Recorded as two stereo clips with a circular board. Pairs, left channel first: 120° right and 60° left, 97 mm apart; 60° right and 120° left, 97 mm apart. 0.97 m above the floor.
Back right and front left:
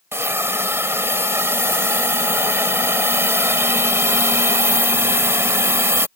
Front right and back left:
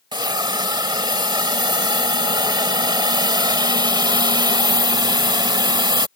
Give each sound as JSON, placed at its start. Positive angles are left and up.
{"t": 0.1, "sound": "a hiss", "azimuth_deg": 115}